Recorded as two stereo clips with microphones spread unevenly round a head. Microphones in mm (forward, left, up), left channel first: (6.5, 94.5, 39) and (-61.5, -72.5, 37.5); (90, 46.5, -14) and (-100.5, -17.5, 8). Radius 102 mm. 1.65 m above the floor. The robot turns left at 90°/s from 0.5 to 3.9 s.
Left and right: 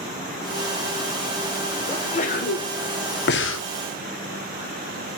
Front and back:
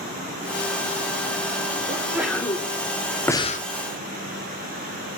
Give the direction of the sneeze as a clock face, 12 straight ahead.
7 o'clock.